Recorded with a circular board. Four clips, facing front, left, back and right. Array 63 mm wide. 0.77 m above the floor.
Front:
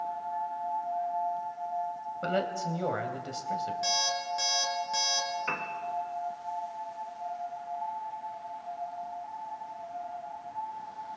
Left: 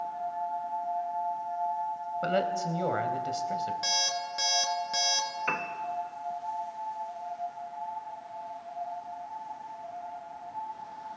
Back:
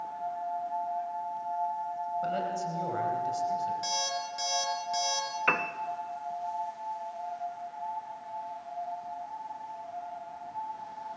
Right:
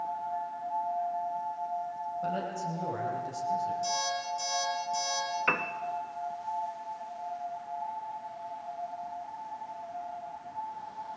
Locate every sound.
2.2 s a man speaking: 60° left, 3.5 m
3.8 s an alarm clock: 80° left, 5 m
5.5 s a piano: 150° right, 1.1 m